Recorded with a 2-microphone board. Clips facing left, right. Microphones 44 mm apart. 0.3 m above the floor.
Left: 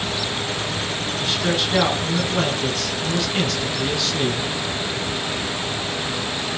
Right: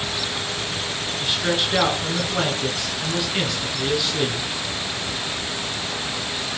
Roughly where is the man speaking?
Centre.